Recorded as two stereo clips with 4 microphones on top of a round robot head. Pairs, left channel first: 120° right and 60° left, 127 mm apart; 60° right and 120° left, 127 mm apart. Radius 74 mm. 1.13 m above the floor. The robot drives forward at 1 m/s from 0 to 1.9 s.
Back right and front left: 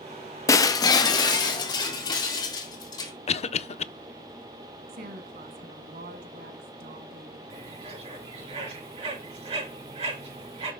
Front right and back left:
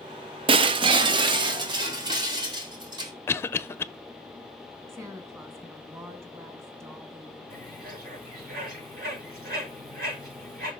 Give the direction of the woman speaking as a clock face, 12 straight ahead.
10 o'clock.